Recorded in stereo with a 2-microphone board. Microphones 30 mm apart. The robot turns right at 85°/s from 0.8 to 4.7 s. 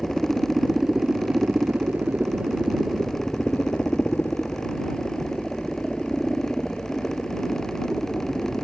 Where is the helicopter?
Straight behind; by 8.6 s 150° left.